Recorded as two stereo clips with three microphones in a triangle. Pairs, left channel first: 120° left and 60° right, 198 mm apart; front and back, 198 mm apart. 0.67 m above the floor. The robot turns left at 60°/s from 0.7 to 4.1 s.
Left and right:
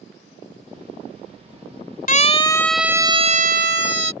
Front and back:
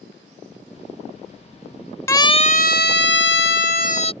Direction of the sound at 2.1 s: 75° left.